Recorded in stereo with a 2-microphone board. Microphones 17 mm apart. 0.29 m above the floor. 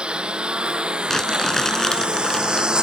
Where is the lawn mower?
85° right; by 2.8 s 60° right (ahead or behind).